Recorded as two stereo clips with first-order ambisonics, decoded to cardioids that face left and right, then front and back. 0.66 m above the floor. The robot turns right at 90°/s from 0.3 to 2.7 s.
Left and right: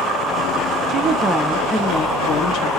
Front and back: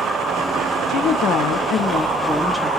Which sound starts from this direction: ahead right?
A woman speaking, at 0.9 s.